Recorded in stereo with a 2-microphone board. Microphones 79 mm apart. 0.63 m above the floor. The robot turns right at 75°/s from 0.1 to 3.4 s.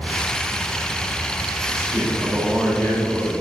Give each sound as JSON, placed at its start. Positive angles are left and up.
{"t": 1.7, "sound": "a man speaking", "azimuth_deg": -50, "distance_m": 3.5}